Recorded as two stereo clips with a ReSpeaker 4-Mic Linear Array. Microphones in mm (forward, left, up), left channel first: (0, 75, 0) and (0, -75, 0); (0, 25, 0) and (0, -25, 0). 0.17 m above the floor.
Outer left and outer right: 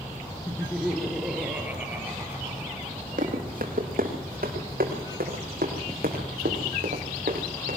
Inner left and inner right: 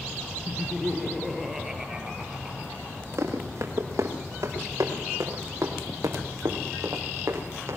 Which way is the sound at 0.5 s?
10° left (ahead or behind).